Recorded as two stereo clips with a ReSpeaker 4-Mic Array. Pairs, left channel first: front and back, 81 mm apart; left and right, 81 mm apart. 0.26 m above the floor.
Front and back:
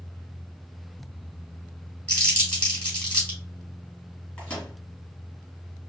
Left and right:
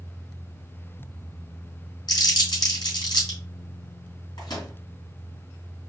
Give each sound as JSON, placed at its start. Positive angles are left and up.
{"t": 2.1, "sound": "crumpling", "azimuth_deg": 65, "distance_m": 3.0}
{"t": 4.4, "sound": "a microwave", "azimuth_deg": 65, "distance_m": 2.5}